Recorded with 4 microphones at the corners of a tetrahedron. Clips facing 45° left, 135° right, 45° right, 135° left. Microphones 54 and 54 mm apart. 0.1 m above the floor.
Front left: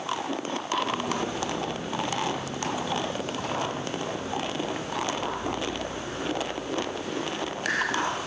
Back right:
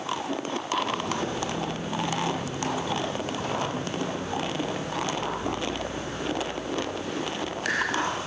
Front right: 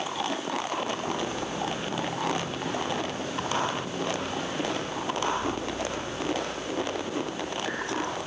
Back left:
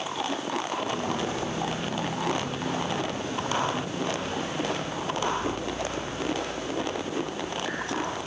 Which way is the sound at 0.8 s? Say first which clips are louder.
Front left 1 dB, back left 1 dB; 120° left.